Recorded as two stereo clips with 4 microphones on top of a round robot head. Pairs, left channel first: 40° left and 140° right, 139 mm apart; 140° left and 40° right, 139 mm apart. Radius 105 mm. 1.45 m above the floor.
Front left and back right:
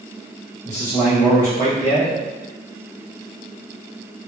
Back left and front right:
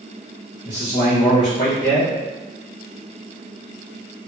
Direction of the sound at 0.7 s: 80° left.